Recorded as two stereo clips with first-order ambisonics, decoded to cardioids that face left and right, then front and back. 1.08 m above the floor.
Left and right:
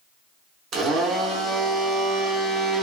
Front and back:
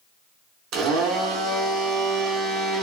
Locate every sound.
0.7 s a blender: 140° right, 0.8 m